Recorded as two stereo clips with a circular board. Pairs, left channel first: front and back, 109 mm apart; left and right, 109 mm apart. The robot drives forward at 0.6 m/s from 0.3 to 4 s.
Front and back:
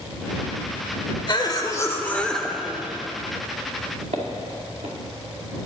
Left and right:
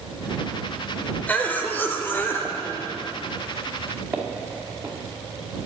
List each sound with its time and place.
1.3 s a cough: 20° left, 1.1 m; by 3.0 s 135° left, 0.8 m
4.1 s footsteps: 165° right, 2 m